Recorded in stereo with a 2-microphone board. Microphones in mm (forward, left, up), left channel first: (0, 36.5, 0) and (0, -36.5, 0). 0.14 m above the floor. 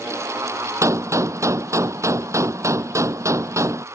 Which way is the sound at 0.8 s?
45° right (ahead or behind).